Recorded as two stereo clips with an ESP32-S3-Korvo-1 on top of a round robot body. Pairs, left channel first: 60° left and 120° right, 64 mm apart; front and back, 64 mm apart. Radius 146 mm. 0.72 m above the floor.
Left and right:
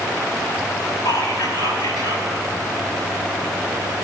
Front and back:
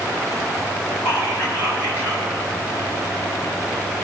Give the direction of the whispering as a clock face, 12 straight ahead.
10 o'clock.